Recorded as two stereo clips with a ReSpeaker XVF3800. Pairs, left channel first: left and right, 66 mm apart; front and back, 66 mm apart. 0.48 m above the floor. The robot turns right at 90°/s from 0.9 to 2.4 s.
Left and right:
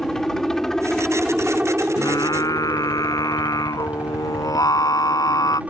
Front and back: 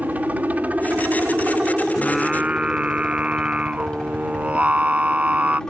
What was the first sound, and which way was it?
A helicopter, 160° left.